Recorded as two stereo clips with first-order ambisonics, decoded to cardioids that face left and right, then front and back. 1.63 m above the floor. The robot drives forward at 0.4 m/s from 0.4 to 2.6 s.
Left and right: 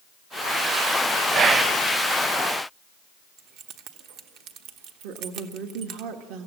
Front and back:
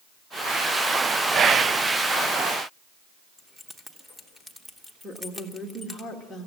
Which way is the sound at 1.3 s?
130° right.